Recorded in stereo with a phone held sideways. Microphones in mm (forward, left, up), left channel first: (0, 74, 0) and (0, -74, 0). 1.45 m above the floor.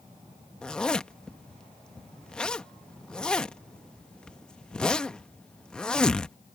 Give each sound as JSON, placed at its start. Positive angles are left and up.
{"t": 0.6, "sound": "a zipper", "side_deg": 5}